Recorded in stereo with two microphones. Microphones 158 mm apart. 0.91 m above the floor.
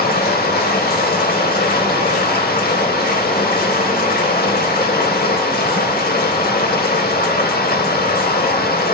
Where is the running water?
75° left (ahead or behind), 1.5 m.